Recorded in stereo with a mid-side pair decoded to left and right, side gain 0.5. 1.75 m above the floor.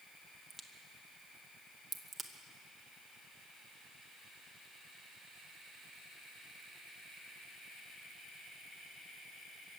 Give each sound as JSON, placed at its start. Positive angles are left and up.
{"t": 0.5, "sound": "a crack", "azimuth_deg": -25, "distance_m": 1.6}